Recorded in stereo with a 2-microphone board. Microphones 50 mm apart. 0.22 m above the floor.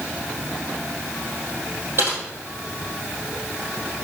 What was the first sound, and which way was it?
Typing on a keyboard, 50° right (ahead or behind).